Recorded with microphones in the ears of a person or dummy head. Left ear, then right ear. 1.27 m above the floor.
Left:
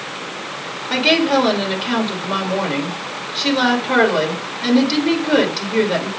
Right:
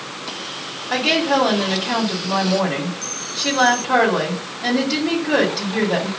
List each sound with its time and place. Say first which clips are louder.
0.9 s a woman speaking: left 2 dB; 35° left (ahead or behind), 2 m